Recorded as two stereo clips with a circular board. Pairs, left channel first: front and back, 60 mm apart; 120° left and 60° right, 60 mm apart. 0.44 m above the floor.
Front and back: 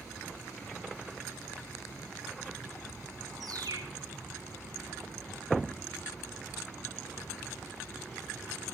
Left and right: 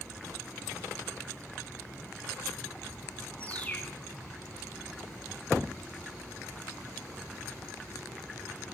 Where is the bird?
170° right, 1.4 m.